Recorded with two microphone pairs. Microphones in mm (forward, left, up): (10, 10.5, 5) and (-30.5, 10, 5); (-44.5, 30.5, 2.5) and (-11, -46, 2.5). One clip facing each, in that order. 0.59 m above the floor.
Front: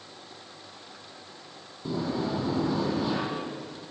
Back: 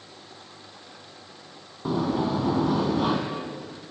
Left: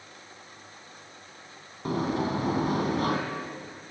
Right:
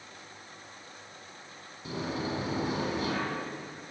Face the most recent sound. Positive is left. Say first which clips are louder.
# back 5 dB, left 6 dB
turn(degrees=150)